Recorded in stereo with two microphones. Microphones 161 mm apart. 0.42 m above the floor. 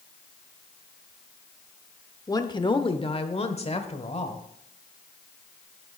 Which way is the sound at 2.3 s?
20° left (ahead or behind).